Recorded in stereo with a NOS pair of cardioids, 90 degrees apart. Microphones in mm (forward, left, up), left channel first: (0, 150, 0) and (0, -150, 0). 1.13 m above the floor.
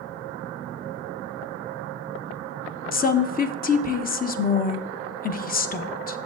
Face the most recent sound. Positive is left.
turn(degrees=30)